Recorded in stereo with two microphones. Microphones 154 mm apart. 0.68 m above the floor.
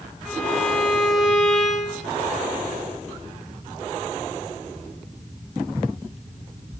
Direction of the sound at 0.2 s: Centre (ahead or behind).